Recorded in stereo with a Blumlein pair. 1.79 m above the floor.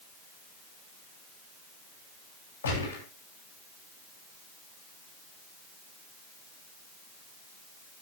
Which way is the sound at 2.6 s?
65° left.